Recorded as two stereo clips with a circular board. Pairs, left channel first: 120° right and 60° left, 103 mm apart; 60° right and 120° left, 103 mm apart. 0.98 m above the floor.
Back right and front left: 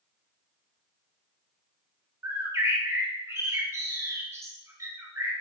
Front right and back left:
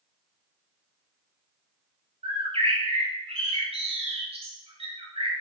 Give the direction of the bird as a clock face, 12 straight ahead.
8 o'clock.